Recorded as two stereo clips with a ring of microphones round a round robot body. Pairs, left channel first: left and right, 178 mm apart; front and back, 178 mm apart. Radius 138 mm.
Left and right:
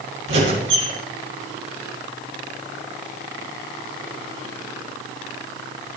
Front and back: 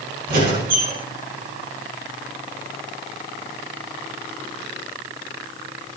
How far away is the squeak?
About 5 m.